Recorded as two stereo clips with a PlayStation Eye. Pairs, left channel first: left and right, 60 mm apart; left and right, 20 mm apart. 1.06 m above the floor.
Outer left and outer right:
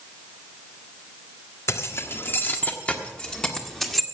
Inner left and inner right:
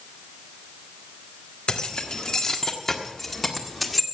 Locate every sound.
1.7 s keys jangling: 50° left (ahead or behind), 1.4 m; by 4.0 s 5° left (ahead or behind), 1.8 m